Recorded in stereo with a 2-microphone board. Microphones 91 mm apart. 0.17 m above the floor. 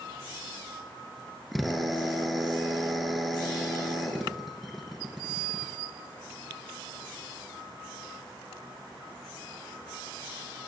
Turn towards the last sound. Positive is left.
turn(degrees=0)  # may be behind; listen again after turning